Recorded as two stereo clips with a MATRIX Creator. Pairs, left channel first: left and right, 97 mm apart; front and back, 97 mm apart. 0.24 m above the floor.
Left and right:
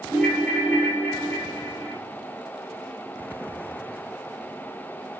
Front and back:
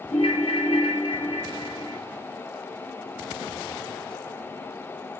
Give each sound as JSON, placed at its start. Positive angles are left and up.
{"t": 0.1, "sound": "a ringtone", "azimuth_deg": 20, "distance_m": 2.5}